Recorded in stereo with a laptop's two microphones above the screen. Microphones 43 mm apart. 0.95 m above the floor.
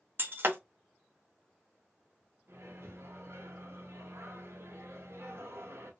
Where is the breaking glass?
55° right (ahead or behind), 0.7 m.